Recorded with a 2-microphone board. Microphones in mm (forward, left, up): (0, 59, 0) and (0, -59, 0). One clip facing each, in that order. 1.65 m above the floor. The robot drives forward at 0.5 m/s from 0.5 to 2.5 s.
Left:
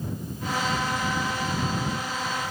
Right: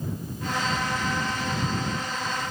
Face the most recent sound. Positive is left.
No sound to turn to.